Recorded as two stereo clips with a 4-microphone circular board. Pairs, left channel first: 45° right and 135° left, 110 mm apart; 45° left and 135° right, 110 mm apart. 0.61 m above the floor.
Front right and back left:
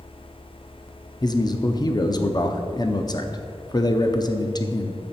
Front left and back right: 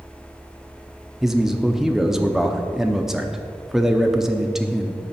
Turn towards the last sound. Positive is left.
turn(degrees=-50)